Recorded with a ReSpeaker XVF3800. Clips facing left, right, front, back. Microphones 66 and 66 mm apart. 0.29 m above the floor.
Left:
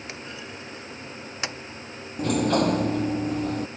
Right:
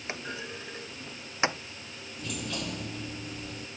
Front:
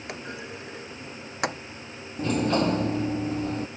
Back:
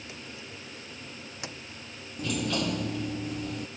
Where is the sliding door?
55° left.